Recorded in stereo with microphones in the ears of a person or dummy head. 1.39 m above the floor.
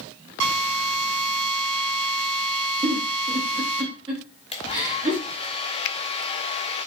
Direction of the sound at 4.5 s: 30° left (ahead or behind).